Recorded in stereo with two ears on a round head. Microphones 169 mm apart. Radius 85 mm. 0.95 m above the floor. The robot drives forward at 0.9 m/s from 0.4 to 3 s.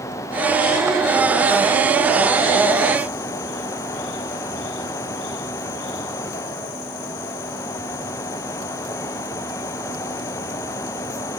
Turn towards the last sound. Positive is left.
No sound to turn to.